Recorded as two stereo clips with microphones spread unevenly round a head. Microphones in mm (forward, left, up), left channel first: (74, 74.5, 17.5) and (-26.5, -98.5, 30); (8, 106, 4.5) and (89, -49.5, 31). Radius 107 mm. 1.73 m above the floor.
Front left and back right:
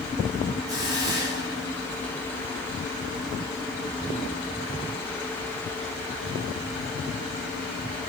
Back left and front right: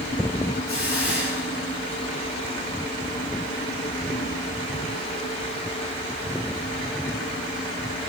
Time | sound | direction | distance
0.7 | a hiss | 165° left | 8.5 m